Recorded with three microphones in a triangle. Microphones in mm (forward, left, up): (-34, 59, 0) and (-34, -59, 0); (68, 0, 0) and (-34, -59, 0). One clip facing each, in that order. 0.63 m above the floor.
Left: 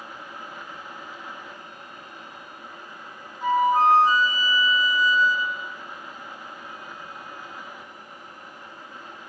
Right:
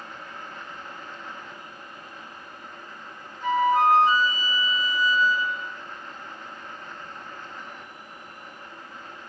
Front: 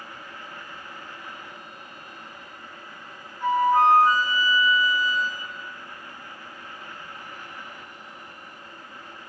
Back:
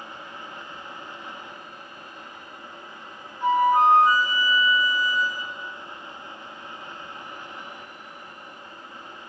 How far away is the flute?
About 0.8 m.